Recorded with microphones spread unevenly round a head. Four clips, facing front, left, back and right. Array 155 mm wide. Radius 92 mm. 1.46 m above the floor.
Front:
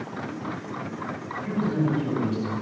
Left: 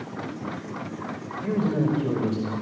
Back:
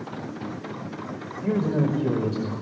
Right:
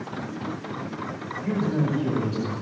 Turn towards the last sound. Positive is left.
turn(degrees=155)